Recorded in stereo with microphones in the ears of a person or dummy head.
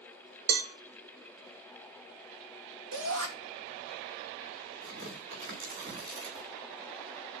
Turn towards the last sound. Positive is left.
turn(degrees=-55)  # may be behind; listen again after turning